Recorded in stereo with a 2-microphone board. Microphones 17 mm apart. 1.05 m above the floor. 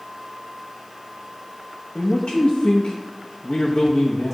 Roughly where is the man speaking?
Left.